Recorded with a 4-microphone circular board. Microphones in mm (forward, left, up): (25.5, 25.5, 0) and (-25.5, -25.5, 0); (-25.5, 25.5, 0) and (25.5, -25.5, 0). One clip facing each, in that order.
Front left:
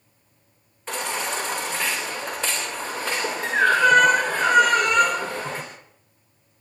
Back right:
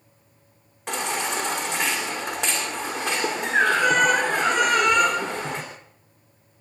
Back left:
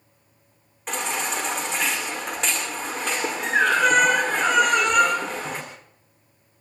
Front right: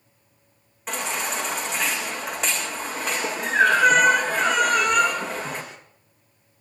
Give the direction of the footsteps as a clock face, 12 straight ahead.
No footsteps in this recording.